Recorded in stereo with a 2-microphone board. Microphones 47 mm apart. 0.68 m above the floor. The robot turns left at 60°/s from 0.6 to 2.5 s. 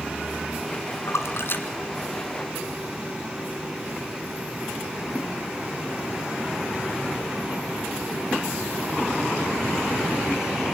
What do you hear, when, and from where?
1.1 s a splash: 75° left (ahead or behind), 1.9 m; by 2.9 s 5° right (ahead or behind), 1.9 m